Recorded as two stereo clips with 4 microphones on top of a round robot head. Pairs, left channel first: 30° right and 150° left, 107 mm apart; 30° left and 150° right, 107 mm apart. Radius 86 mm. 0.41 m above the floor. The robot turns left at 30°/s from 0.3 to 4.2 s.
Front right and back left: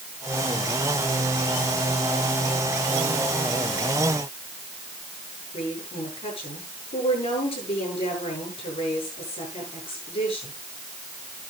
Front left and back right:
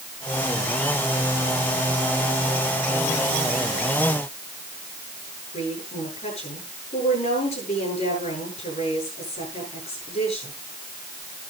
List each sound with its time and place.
5.5 s a woman speaking: straight ahead, 9.5 m